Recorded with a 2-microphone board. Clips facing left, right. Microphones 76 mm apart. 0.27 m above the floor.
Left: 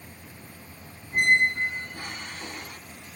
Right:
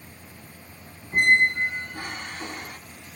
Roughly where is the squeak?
Right.